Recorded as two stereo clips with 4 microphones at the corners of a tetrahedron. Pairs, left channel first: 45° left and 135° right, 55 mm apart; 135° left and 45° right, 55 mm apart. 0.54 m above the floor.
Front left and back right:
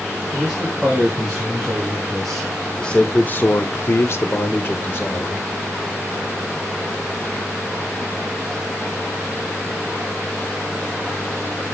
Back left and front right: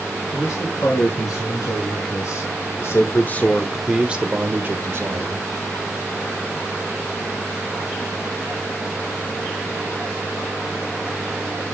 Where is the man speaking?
145° left, 5 m; by 5.5 s 10° right, 3 m.